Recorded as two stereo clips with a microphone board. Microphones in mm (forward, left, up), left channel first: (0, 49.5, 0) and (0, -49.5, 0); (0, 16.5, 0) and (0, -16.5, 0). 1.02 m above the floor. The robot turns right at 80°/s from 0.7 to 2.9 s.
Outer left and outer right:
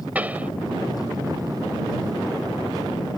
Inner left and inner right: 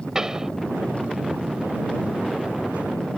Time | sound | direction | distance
0.1 | a pop | 15° right (ahead or behind) | ?